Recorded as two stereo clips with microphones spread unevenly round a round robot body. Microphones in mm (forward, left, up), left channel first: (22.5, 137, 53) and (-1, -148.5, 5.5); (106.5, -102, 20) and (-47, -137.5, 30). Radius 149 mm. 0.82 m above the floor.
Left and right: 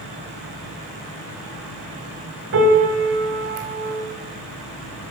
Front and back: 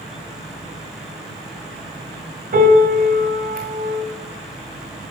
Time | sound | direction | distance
2.5 | a piano | 150° right | 2 m